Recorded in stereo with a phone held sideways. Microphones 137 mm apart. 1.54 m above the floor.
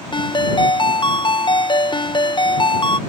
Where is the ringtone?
35° left (ahead or behind).